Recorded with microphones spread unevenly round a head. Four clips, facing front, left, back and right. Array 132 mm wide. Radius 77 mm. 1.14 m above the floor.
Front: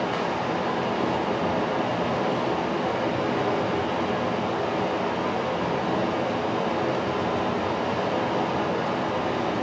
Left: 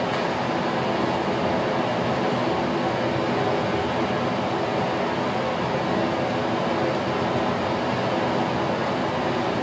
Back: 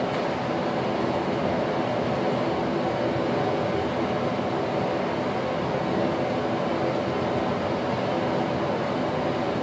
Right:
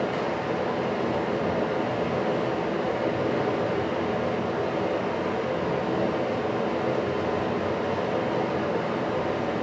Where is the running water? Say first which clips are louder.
Left 3 dB, even; 45° left, 1.9 m.